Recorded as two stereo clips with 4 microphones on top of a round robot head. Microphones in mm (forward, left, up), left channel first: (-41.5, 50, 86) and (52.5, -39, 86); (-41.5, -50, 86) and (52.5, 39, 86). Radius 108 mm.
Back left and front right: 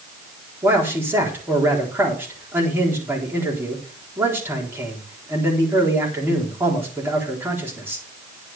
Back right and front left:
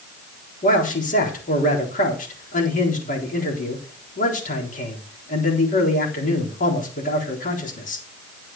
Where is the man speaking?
120° right, 4 m.